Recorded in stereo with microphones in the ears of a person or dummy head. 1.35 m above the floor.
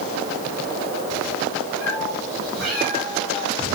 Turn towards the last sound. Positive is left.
turn(degrees=-10)  # may be behind; listen again after turning